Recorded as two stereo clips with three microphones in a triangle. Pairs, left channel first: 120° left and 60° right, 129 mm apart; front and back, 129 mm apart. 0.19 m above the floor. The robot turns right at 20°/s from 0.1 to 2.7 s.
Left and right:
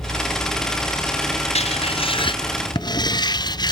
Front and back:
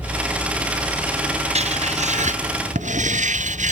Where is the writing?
150° left; by 3.7 s 175° left.